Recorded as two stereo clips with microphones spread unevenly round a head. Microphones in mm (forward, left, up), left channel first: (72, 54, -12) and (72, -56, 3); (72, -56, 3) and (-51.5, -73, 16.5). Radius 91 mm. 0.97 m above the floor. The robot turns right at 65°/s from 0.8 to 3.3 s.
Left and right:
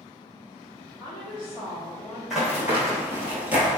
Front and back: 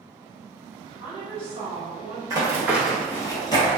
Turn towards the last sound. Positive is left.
turn(degrees=-30)